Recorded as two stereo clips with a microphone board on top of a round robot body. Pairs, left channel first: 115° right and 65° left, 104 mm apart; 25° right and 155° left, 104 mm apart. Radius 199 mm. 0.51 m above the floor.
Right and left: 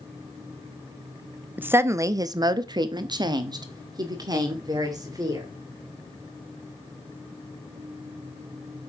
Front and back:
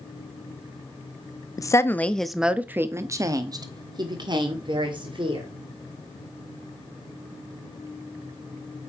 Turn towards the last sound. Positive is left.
turn(degrees=120)